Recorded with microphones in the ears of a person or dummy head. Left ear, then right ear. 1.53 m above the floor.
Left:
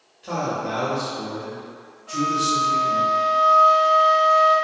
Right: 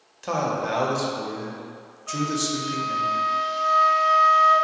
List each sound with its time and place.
0.2 s a man speaking: 55° right (ahead or behind), 0.6 m
2.1 s a flute: 50° right (ahead or behind), 1.4 m